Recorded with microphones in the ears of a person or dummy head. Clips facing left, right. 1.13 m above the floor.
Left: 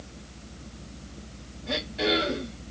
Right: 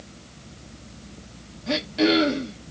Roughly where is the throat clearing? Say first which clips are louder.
Right 7 dB; right.